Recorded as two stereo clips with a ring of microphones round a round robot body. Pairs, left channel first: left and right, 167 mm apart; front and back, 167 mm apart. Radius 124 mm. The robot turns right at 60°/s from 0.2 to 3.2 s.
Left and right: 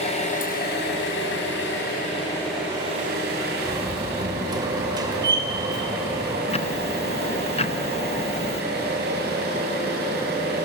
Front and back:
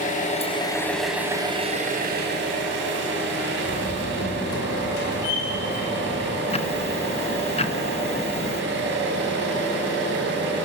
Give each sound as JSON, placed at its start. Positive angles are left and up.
{"t": 0.0, "sound": "an engine running", "azimuth_deg": 40, "distance_m": 3.5}
{"t": 3.6, "sound": "a door slam", "azimuth_deg": -25, "distance_m": 2.5}
{"t": 6.5, "sound": "ticking", "azimuth_deg": 45, "distance_m": 1.0}